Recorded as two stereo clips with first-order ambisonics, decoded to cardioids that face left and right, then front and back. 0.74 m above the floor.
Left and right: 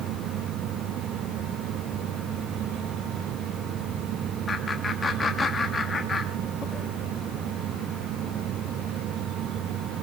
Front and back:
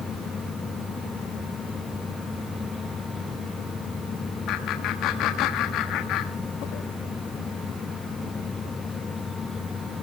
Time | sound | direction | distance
4.5 | laughter | 20° left | 1.2 m